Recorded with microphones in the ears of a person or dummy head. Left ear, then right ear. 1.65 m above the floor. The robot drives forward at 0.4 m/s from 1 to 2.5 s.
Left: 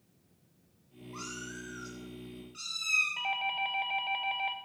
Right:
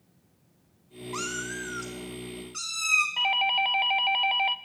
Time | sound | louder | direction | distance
1.1 | a cat meowing | right 9 dB | 25° right (ahead or behind) | 0.9 m
3.2 | a doorbell | right 8 dB | 20° right (ahead or behind) | 0.6 m